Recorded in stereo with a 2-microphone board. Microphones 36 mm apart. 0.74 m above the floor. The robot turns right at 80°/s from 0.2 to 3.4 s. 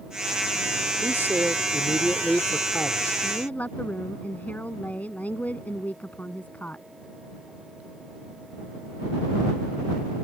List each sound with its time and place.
1.0 s a man speaking: 115° right; by 3.1 s 55° left
3.2 s a woman speaking: 55° left (ahead or behind); by 6.9 s 45° left (ahead or behind)